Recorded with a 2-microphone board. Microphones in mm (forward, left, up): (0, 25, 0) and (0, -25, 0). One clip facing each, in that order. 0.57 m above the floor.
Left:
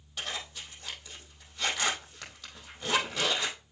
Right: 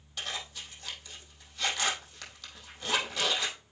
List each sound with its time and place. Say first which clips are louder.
0.2 s a zipper: left 1 dB; 10° left (ahead or behind), 4.5 m